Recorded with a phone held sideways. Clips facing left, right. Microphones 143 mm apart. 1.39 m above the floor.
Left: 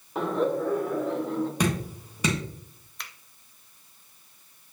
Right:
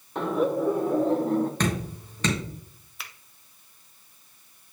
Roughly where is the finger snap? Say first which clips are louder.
Even; centre.